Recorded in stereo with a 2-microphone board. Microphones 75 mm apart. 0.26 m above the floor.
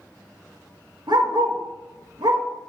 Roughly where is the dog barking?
Right.